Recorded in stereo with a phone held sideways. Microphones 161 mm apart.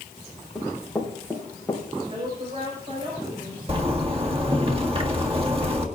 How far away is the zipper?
About 1.7 m.